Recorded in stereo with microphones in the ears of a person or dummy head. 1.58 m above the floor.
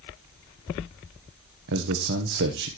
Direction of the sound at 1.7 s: 65° right (ahead or behind).